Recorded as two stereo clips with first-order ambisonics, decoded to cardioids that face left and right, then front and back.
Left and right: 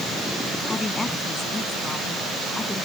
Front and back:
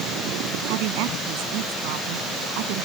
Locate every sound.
0.7 s a woman speaking: 170° left